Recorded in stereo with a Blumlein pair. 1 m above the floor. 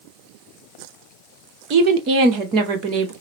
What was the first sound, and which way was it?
A woman speaking, 40° right.